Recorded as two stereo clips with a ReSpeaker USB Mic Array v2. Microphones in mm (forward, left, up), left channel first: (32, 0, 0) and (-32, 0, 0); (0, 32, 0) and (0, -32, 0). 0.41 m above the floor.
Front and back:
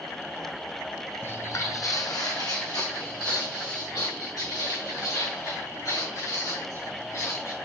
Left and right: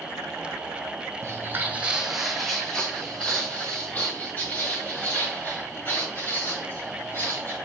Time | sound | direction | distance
1.2 | footsteps | 55° right | 0.9 m